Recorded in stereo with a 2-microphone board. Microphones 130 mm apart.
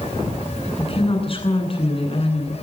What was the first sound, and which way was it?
A woman speaking, 45° left (ahead or behind).